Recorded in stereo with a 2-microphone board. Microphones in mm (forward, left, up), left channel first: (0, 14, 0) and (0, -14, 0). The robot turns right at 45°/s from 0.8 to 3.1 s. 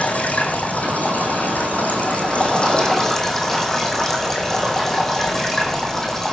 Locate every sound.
0.0 s running water: 65° left, 2.5 m; by 6.3 s 165° left, 2.5 m